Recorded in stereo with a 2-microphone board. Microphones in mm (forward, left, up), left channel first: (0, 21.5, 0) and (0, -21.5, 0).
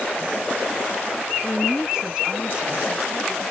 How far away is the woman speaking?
About 1.5 m.